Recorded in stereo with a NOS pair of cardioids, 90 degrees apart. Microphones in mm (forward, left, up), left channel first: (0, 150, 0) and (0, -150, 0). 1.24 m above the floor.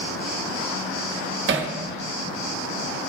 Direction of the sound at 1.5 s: 40° right.